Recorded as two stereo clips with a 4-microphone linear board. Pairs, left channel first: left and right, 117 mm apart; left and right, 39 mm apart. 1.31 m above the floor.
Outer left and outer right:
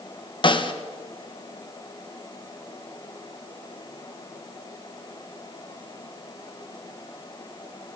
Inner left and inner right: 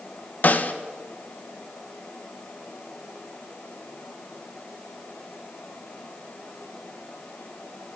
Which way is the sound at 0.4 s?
45° left (ahead or behind).